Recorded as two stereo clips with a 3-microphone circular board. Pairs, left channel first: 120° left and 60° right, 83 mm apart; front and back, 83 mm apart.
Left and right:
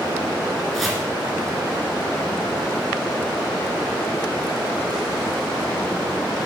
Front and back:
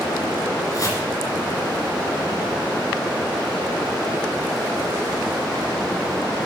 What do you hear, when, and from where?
0.7 s chopping: 30° left, 2.5 m